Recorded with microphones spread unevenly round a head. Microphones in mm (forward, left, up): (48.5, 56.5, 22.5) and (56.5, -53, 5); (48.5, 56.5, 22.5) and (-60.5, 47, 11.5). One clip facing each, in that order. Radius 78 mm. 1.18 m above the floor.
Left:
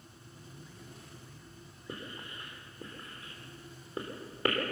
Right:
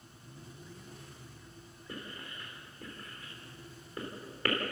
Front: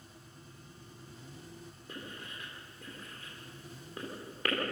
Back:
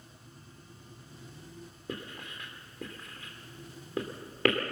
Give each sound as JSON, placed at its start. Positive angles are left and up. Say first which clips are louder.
{"t": 1.9, "sound": "writing", "louder": "left 1 dB, back 5 dB", "azimuth_deg": 170, "distance_m": 3.0}